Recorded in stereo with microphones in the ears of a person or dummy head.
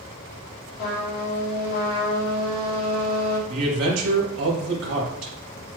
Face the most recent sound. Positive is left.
turn(degrees=-90)